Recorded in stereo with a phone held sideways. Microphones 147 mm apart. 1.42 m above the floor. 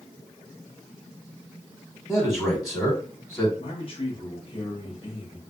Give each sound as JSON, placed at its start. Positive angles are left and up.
{"t": 2.1, "sound": "a man speaking", "side_deg": 10, "distance_m": 1.3}
{"t": 3.6, "sound": "a man speaking", "side_deg": 40, "distance_m": 1.2}